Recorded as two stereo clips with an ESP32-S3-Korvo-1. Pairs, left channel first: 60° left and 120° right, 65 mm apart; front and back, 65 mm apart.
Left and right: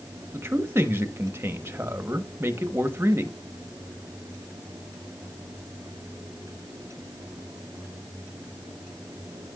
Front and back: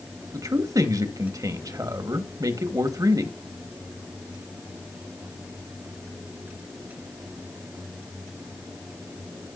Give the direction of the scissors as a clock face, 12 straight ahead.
I don't hear scissors.